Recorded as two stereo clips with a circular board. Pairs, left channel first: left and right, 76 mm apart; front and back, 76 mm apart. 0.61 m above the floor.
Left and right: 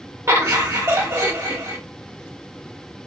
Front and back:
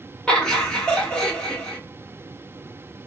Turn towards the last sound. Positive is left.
turn(degrees=-70)